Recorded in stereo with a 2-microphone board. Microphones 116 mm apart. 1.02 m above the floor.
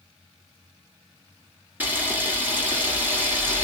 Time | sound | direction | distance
1.8 | a camera shutter | 15° right (ahead or behind) | 1.7 m